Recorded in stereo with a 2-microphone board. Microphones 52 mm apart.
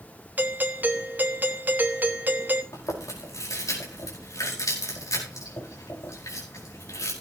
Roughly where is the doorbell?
Right.